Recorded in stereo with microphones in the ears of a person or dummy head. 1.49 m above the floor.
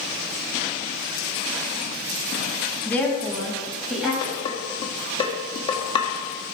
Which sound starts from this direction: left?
Dishes clattering, at 4.2 s.